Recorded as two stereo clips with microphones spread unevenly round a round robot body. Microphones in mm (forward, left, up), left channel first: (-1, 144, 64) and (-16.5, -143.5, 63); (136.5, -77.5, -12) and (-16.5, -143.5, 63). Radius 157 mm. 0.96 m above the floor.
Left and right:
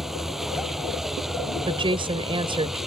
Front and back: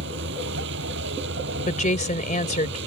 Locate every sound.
0.0 s a vehicle: straight behind
1.7 s a woman speaking: 20° right